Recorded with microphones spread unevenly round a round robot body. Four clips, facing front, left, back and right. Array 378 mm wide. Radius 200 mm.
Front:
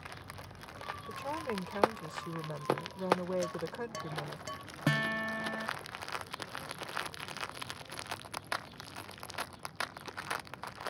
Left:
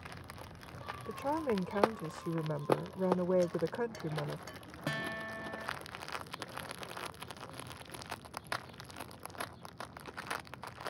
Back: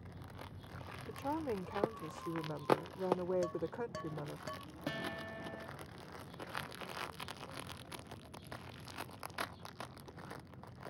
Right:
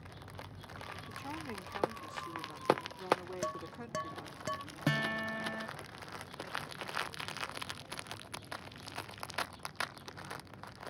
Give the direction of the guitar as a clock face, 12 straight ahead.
1 o'clock.